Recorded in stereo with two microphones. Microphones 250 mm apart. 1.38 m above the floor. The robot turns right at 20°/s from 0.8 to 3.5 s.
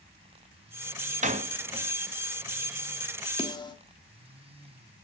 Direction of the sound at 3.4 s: 20° left (ahead or behind).